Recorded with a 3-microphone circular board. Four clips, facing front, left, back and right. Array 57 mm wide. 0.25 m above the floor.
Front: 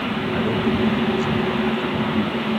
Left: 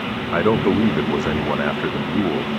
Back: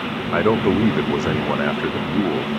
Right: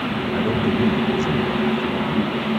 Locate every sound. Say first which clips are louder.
0.3 s a man speaking: left 5 dB, back 6 dB; 140° left